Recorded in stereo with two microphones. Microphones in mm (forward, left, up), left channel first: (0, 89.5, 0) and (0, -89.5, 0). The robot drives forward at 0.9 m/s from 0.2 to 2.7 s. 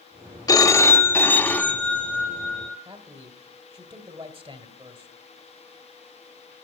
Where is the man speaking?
30° right (ahead or behind), 1.8 m.